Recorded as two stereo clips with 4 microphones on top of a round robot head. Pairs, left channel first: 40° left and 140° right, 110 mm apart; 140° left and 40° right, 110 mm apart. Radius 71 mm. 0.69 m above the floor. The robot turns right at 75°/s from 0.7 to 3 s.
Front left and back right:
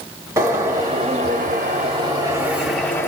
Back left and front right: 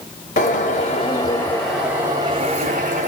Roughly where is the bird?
Behind left.